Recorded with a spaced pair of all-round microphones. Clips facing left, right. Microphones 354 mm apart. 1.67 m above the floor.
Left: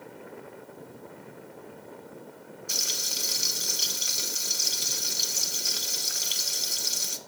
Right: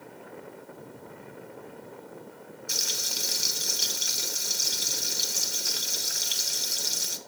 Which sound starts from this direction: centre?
Frying, at 2.7 s.